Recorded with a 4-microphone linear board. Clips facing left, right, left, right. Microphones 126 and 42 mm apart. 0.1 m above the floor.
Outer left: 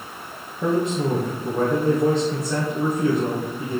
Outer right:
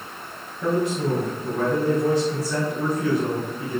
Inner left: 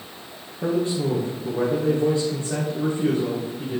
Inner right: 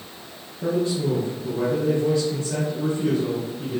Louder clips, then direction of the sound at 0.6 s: Outer left 1 dB, even; 35° left (ahead or behind).